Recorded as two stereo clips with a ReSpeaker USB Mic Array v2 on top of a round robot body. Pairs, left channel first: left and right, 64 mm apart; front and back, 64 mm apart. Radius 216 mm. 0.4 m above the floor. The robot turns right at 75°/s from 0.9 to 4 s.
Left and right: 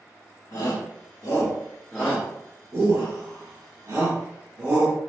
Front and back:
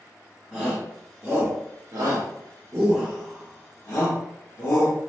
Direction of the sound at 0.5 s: 85° left.